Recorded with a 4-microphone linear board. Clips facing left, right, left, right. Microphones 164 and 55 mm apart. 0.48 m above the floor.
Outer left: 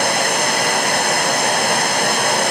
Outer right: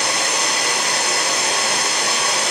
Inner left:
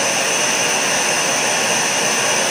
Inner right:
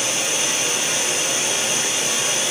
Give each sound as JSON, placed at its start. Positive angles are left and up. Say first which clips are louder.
{"t": 0.0, "sound": "running water", "louder": "outer left 5 dB, inner left 6 dB", "side_deg": 55, "distance_m": 1.8}